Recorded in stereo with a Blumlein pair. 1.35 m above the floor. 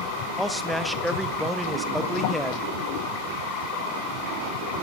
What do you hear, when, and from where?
0.4 s a man speaking: straight ahead, 0.6 m